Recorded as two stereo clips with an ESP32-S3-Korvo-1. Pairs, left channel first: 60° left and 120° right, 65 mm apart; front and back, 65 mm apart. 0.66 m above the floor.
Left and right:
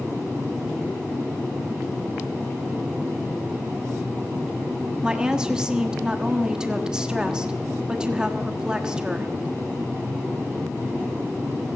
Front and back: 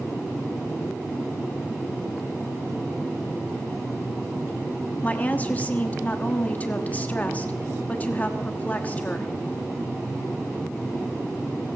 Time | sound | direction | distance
5.0 | a woman speaking | 50° right | 1.2 m